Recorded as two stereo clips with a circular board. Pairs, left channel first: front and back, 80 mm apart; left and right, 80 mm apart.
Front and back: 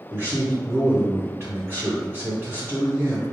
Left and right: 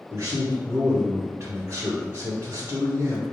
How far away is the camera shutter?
I don't hear a camera shutter.